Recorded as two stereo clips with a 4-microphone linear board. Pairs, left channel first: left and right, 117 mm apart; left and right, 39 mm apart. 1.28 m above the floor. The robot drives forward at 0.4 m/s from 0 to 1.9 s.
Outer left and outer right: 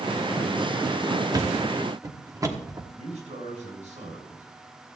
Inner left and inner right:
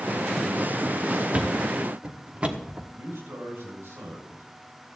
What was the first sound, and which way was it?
A thud, 35° right (ahead or behind).